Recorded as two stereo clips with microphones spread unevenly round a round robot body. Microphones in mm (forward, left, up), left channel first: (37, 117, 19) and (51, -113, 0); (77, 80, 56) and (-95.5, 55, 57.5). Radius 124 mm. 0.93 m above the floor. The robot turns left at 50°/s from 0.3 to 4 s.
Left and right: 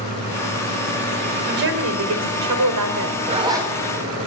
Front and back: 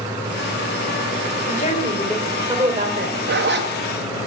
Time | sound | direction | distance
1.4 | a woman speaking | 40° right | 3.5 m
3.3 | a zipper | 145° right | 2 m